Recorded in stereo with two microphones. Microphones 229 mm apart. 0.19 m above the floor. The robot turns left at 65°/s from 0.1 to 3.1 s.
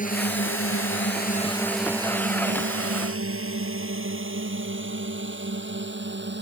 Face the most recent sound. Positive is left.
turn(degrees=-50)  # may be behind; listen again after turning